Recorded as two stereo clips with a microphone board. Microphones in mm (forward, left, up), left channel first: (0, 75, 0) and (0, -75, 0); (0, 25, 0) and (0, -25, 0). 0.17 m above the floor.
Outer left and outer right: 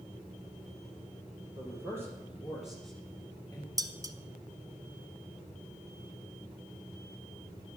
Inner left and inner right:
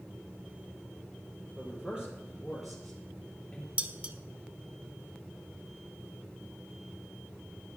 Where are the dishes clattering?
25° right (ahead or behind), 0.8 m.